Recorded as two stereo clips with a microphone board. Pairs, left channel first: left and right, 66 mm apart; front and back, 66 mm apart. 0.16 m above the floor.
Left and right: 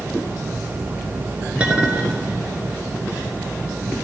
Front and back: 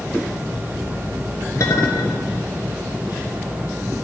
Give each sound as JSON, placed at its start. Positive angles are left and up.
{"t": 1.6, "sound": "a clink", "azimuth_deg": -20, "distance_m": 1.8}